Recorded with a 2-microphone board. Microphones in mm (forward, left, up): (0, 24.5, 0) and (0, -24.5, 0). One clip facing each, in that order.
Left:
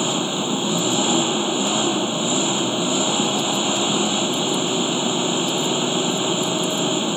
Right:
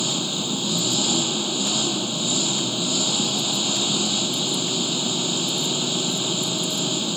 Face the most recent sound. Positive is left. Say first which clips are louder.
# left 5 dB
turn(degrees=30)  # may be behind; listen again after turning